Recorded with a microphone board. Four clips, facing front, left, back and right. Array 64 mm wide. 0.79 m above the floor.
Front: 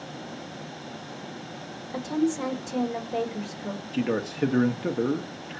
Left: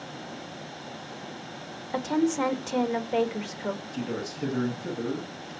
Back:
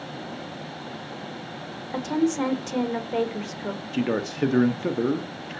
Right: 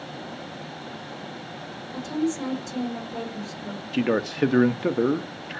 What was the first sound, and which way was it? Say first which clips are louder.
A woman speaking: left 2 dB, back 2 dB; 125° left.